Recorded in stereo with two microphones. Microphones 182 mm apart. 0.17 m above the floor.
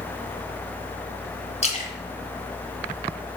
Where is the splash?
35° left (ahead or behind), 2 m.